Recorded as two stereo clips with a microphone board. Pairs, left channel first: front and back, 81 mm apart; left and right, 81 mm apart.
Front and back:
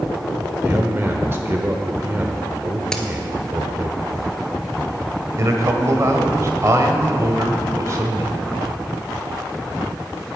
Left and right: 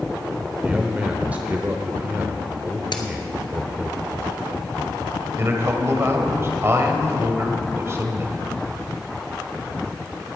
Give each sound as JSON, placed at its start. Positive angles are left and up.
{"t": 0.6, "sound": "a man speaking", "azimuth_deg": -145, "distance_m": 1.0}
{"t": 2.9, "sound": "a crack", "azimuth_deg": 80, "distance_m": 1.2}
{"t": 5.4, "sound": "a man speaking", "azimuth_deg": -140, "distance_m": 1.4}